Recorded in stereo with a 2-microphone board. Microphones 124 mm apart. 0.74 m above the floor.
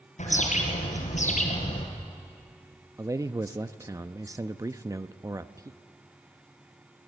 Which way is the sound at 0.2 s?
75° left (ahead or behind).